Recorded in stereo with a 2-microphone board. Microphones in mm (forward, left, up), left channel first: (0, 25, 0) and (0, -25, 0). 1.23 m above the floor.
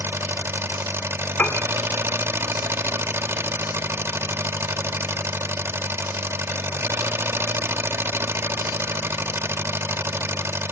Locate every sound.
0.0 s an engine running: 55° right (ahead or behind), 1.0 m
1.4 s a piano: 35° left (ahead or behind), 1.9 m